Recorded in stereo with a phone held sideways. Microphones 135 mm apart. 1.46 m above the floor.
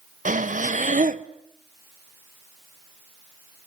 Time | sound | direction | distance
0.2 | breathing | 70° right (ahead or behind) | 0.9 m